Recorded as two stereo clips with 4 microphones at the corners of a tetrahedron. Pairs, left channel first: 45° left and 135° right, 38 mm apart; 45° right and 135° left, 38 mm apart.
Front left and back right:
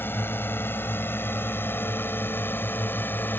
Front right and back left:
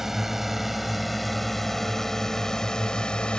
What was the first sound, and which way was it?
A drone, 55° left.